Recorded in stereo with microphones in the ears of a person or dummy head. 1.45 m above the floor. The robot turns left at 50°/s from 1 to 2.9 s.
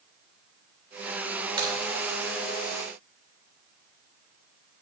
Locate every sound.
1.6 s a crack: 30° right (ahead or behind), 2.5 m; by 1.7 s 20° right (ahead or behind), 2.5 m